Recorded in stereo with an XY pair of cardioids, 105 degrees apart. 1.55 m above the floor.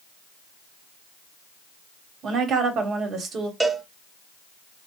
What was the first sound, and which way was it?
A woman speaking, 60° right.